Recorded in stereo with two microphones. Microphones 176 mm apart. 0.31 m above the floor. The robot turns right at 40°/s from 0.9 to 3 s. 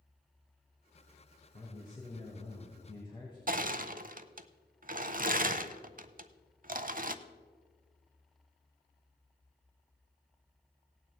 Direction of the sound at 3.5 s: 50° right (ahead or behind).